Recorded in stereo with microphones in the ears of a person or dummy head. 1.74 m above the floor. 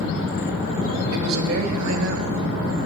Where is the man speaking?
85° right, 1.8 m; by 2.9 s 60° right (ahead or behind), 1.0 m.